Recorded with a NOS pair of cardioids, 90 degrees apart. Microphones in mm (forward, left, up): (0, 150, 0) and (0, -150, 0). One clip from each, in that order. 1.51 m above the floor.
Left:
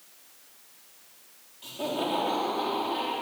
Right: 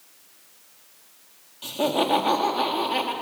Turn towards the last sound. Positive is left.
turn(degrees=-80)